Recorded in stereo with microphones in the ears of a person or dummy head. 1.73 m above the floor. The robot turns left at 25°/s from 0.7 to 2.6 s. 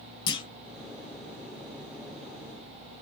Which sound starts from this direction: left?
A clunk, at 0.3 s.